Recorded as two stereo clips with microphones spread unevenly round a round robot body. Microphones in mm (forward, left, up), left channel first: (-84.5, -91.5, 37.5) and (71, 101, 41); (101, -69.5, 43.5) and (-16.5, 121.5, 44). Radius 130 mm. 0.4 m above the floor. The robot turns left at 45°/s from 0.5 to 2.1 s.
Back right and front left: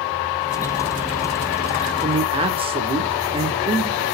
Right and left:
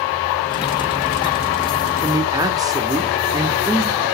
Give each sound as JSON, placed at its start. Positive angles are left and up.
{"t": 2.0, "sound": "a man speaking", "azimuth_deg": 80, "distance_m": 0.8}